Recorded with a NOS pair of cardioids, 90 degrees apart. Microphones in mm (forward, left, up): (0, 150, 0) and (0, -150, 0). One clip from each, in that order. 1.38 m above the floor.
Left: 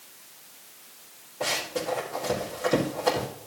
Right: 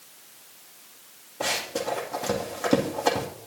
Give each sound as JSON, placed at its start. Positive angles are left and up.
{"t": 1.4, "sound": "running footsteps", "azimuth_deg": -55, "distance_m": 4.5}